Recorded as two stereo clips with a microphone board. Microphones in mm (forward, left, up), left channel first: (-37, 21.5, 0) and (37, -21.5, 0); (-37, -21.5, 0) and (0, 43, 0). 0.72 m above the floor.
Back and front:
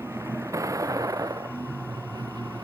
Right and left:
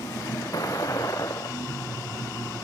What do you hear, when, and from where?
0.0 s a vehicle: 85° right; by 2.6 s 65° right